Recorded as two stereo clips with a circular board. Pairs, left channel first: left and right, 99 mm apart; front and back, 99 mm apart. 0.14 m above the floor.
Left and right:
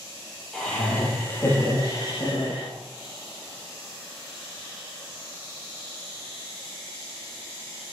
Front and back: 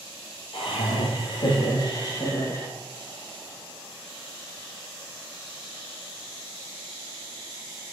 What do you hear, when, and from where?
0.5 s laughter: 5° left, 3 m; by 2.7 s 65° left, 3 m